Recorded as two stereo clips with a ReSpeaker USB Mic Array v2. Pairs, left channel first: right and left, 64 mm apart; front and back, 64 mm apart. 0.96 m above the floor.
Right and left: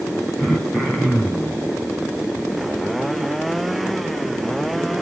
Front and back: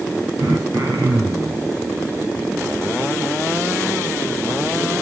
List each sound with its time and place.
0.4 s throat clearing: straight behind, 4 m